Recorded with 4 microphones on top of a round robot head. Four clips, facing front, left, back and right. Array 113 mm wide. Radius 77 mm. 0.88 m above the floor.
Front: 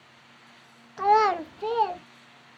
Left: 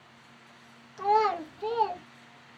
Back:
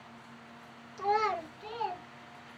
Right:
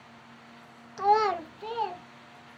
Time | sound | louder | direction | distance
1.0 | a child speaking | right 1 dB, front 9 dB | 30° right | 0.6 m